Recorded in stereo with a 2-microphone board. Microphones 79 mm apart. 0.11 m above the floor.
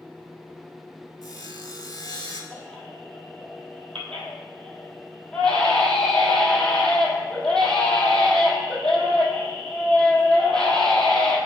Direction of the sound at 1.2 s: 50° left (ahead or behind).